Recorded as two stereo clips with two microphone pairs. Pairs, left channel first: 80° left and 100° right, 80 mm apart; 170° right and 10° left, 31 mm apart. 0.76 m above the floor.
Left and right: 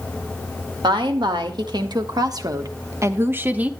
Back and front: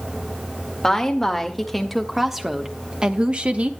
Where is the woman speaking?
90° right, 2.0 m; by 3.7 s 30° right, 1.2 m.